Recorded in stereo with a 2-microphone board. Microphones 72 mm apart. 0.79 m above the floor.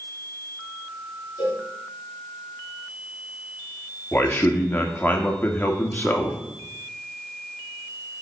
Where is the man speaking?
25° left (ahead or behind), 1.5 m.